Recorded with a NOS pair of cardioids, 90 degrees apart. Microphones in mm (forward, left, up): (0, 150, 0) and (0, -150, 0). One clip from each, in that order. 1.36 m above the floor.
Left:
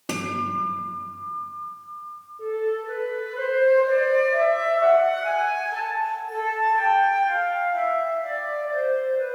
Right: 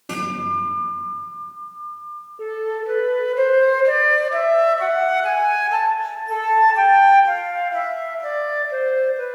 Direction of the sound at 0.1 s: 35° left.